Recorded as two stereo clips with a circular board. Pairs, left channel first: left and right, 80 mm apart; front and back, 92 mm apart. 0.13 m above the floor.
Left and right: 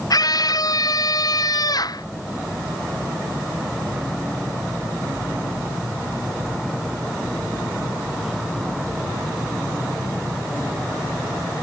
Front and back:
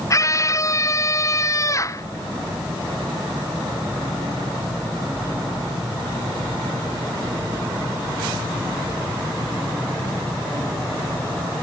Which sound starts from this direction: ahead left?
A scream, at 0.1 s.